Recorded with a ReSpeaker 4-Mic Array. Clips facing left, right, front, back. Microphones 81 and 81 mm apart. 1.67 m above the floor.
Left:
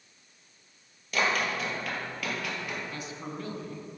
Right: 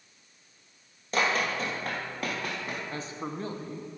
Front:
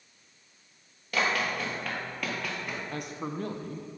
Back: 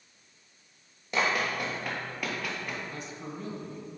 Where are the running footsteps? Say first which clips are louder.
Right 1 dB, even; 120° right, 2 m; by 2.8 s 90° right, 2.0 m.